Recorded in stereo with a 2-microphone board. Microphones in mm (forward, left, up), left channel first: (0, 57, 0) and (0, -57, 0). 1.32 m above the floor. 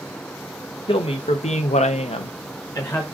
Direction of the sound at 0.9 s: 50° left (ahead or behind).